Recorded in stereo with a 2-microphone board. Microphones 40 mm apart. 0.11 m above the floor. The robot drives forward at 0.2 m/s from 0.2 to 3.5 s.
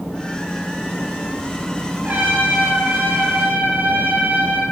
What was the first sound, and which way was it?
A trumpet, 50° right (ahead or behind).